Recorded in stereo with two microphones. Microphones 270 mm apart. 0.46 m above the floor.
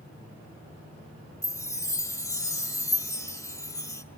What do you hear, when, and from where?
1.4 s a chime: 10° left (ahead or behind), 0.6 m